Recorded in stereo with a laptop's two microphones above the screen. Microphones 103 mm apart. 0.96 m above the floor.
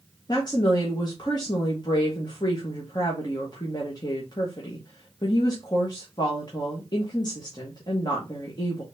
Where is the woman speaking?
45° left (ahead or behind), 1.1 m.